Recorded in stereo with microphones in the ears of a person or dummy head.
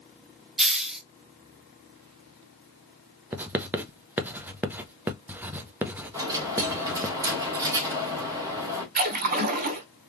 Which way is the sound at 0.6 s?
Centre (ahead or behind).